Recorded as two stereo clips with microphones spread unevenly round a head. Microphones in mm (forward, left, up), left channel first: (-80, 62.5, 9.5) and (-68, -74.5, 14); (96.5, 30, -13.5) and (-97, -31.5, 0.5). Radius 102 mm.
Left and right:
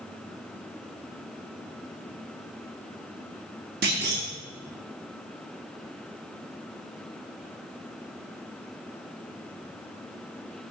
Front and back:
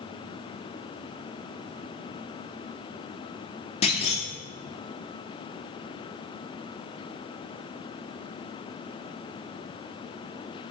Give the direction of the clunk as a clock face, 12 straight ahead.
1 o'clock.